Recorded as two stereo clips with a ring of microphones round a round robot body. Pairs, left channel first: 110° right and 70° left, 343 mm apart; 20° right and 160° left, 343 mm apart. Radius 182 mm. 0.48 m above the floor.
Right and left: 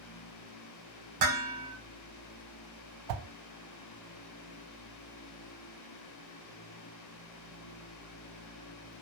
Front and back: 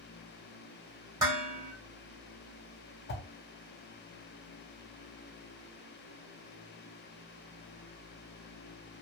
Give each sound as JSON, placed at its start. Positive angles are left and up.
{"t": 1.2, "sound": "dishes clattering", "azimuth_deg": 75, "distance_m": 1.5}
{"t": 3.1, "sound": "a whoosh", "azimuth_deg": 40, "distance_m": 0.5}